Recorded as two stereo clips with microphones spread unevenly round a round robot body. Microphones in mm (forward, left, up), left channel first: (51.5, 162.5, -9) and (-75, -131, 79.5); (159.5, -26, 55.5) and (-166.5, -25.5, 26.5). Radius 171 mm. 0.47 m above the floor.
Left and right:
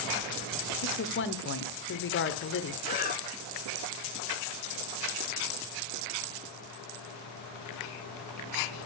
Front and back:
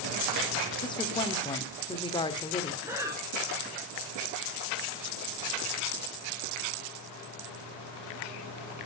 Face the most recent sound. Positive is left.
turn(degrees=105)